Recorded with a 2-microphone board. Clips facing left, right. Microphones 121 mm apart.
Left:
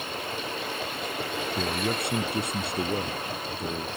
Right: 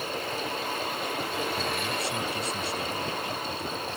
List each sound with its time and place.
1.6 s a man speaking: 60° left (ahead or behind)